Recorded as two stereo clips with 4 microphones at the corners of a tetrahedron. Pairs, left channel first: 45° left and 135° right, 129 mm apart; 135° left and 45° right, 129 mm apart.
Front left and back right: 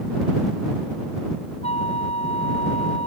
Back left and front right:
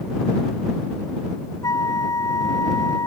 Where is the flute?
75° left.